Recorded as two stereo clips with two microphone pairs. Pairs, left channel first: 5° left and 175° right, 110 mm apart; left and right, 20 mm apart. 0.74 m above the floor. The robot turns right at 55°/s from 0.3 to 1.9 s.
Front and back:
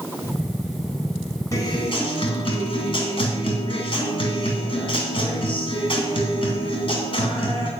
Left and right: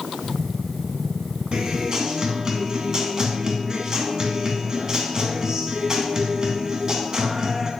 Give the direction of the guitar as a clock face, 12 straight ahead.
2 o'clock.